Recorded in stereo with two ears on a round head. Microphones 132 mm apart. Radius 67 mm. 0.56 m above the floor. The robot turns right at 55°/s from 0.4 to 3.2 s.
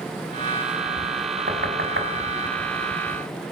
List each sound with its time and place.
1.5 s knocking: 65° right (ahead or behind), 4.5 m; by 2.1 s 75° right (ahead or behind), 4.5 m